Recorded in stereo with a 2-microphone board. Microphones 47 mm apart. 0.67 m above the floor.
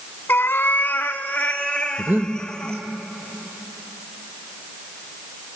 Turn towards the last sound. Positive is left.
turn(degrees=-40)  # may be behind; listen again after turning